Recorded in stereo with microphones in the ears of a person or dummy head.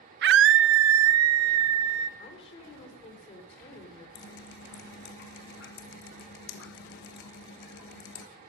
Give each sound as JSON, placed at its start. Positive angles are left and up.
{"t": 0.2, "sound": "a scream", "side_deg": -50, "distance_m": 0.6}
{"t": 2.2, "sound": "a woman speaking", "side_deg": 30, "distance_m": 4.0}
{"t": 4.2, "sound": "dripping", "side_deg": 50, "distance_m": 1.4}